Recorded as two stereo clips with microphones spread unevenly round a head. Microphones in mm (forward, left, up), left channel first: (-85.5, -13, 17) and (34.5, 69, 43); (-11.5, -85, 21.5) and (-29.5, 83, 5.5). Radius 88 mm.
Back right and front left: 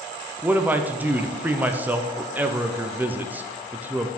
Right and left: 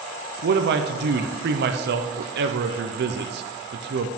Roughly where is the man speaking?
Behind left.